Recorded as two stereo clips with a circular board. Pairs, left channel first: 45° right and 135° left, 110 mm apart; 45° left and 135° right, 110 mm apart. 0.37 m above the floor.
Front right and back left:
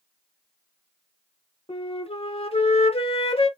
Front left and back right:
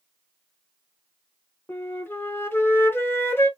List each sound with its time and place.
1.7 s a flute: 25° right, 0.8 m